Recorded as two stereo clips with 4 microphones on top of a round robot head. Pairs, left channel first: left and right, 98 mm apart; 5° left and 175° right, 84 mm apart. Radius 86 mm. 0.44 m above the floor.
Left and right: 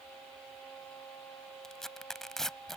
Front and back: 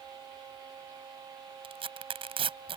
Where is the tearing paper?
175° left.